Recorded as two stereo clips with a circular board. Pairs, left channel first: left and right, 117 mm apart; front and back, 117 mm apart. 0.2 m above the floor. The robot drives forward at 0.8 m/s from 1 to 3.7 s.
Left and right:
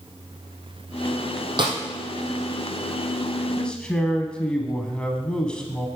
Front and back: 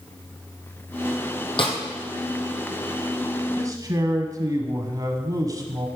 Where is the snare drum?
40° right, 2 m; by 1.8 s 45° right, 1.9 m.